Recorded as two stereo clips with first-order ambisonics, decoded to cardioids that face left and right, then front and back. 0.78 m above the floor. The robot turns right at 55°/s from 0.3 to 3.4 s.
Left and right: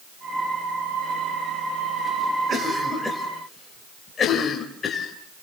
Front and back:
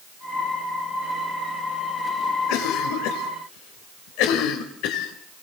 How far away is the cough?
About 3 m.